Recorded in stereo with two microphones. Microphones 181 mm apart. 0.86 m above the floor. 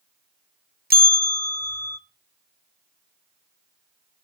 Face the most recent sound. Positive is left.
turn(degrees=-60)  # may be behind; listen again after turning